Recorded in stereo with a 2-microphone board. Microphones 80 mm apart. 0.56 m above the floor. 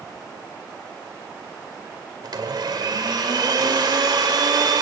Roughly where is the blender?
Right.